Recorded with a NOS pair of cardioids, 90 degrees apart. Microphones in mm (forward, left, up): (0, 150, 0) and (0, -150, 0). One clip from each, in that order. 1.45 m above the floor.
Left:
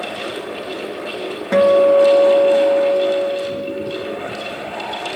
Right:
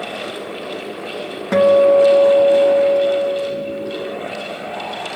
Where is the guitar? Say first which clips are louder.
Even; 10° right, 1.2 m.